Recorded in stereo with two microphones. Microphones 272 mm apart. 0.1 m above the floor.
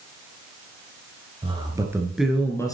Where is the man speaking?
20° right (ahead or behind), 1.8 m; by 2.7 s 15° left (ahead or behind), 1.5 m.